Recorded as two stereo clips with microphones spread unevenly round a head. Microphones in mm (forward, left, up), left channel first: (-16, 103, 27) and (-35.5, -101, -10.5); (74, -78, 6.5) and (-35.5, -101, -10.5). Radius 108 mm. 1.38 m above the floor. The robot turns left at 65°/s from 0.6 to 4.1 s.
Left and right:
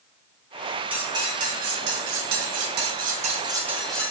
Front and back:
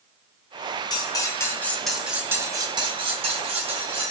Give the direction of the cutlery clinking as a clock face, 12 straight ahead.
12 o'clock.